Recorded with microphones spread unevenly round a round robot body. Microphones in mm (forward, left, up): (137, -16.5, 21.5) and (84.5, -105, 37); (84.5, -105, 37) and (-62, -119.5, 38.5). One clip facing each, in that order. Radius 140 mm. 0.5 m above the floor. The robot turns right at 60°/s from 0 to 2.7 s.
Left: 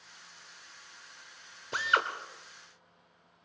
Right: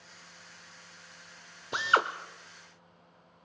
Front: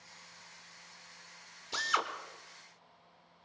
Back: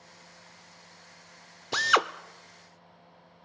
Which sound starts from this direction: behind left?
A drill, at 1.7 s.